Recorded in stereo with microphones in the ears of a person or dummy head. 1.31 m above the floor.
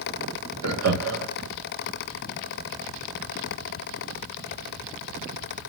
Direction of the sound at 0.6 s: 75° right (ahead or behind).